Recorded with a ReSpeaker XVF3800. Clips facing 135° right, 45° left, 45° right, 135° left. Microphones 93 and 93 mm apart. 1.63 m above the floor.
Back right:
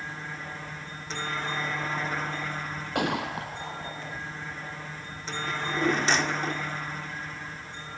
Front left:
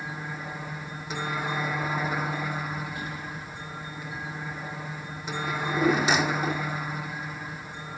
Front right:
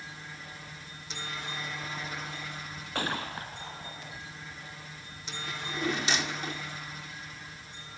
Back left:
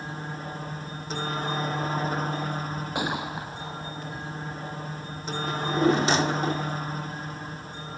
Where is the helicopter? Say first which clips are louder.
Front left 2 dB, back left 10 dB; 120° left.